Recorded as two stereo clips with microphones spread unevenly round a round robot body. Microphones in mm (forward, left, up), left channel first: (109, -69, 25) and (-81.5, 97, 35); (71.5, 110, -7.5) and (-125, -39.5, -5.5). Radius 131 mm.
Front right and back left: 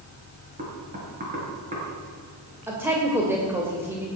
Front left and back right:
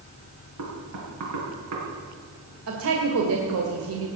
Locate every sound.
0.6 s knocking: 160° right, 5 m
2.7 s a woman speaking: 140° right, 2.5 m